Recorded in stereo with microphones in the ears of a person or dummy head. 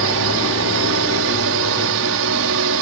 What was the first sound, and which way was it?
A drone, 65° right (ahead or behind).